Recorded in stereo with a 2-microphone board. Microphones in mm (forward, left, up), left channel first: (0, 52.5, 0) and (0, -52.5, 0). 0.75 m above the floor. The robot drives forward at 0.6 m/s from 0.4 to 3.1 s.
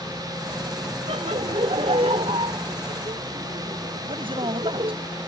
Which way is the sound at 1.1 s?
75° right (ahead or behind).